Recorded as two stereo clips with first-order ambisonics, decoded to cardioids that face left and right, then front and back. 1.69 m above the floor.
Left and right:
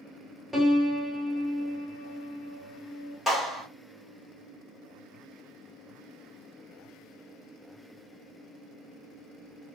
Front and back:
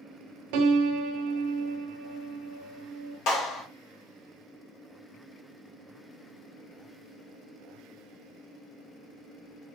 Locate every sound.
0.5 s a piano: 175° right, 0.6 m
3.3 s a clap: straight ahead, 1.5 m